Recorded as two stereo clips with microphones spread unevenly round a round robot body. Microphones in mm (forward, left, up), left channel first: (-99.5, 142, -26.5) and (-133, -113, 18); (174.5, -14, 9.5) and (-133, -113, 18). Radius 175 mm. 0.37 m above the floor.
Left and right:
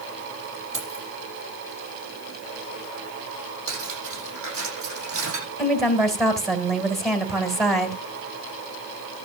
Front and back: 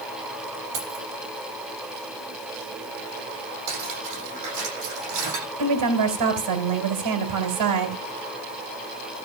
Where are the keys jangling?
135° right, 7 m.